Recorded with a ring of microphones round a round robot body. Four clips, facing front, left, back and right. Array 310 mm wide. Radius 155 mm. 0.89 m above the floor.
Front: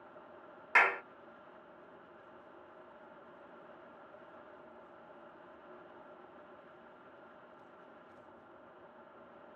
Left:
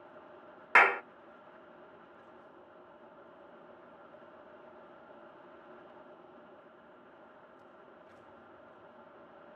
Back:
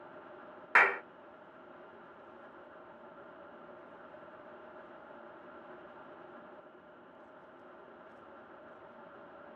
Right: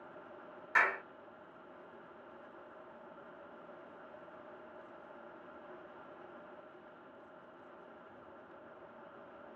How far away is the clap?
About 0.6 m.